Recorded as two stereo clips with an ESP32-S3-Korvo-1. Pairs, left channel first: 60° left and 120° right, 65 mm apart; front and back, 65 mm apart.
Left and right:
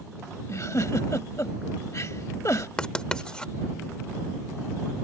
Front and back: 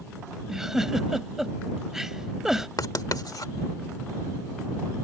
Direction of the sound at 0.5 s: 100° left.